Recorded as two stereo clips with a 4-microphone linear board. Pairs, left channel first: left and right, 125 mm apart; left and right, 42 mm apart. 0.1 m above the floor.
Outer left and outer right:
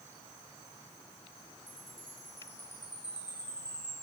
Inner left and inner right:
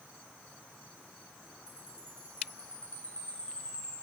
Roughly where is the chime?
Left.